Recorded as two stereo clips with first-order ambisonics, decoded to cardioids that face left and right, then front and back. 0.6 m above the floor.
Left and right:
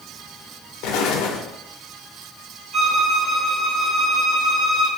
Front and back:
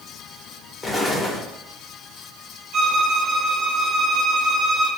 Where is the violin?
145° right, 1.3 m.